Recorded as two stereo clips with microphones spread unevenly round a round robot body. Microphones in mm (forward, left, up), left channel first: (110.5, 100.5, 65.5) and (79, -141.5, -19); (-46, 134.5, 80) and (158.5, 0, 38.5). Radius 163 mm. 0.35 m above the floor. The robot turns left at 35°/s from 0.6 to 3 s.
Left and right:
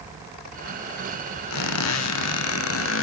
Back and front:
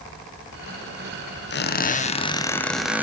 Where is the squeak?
105° left, 1.8 m; by 3.0 s 50° left, 1.8 m.